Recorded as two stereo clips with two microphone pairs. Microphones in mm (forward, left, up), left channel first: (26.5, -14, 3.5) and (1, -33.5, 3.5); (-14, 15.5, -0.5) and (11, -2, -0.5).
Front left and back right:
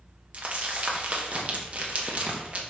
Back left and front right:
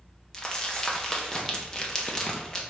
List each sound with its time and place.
0.3 s crumpling: 155° right, 1.1 m